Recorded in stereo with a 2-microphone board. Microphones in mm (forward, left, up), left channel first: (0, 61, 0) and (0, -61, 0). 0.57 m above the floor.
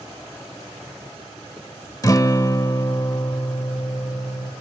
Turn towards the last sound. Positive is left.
turn(degrees=30)  # may be behind; listen again after turning